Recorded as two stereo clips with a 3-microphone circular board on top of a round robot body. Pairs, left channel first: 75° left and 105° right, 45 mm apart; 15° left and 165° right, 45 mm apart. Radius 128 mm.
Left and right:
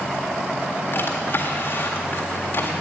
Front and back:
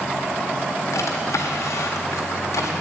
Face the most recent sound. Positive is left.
turn(degrees=30)